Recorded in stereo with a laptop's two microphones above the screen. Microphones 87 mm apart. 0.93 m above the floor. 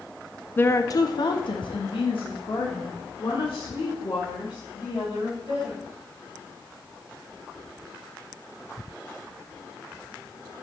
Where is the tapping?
No tapping in this recording.